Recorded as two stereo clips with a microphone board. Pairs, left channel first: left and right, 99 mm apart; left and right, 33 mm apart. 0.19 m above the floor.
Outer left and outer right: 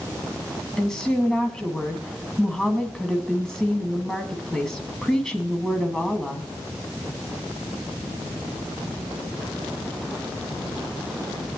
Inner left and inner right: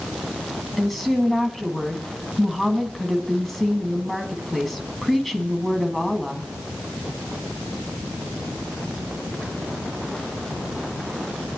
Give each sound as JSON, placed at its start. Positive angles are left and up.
{"t": 0.8, "sound": "a woman speaking", "side_deg": 5, "distance_m": 1.8}